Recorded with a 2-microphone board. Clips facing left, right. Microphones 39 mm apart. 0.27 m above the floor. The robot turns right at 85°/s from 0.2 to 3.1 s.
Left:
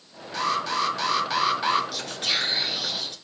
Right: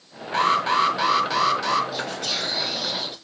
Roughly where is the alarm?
Right.